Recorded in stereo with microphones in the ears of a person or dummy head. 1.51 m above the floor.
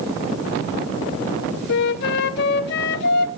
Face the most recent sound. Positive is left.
turn(degrees=65)  # may be behind; listen again after turning